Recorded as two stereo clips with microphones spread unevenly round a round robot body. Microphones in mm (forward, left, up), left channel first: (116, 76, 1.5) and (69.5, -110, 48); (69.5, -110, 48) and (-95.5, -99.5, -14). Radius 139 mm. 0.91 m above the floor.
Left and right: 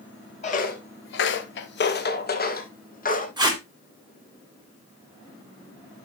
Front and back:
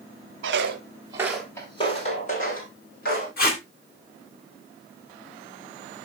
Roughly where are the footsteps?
Behind left.